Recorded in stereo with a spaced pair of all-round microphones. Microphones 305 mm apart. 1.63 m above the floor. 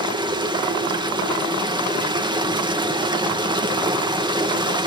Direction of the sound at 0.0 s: 15° right (ahead or behind).